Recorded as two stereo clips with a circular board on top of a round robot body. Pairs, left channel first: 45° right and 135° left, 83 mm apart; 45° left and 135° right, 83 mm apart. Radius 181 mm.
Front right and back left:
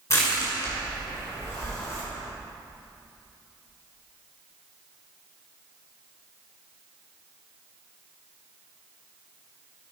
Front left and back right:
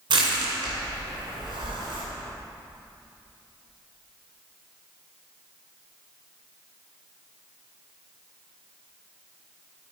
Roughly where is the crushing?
Right.